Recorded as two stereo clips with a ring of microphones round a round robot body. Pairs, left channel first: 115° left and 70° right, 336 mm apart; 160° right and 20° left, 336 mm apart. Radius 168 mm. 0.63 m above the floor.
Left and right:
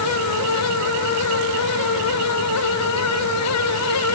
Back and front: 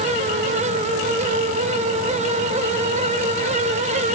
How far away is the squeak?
No squeak in this recording.